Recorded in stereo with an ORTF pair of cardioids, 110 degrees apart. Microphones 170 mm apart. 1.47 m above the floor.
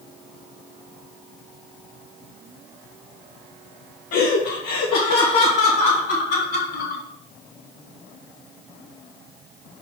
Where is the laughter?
65° left, 0.7 m; by 7.0 s 80° left, 3 m.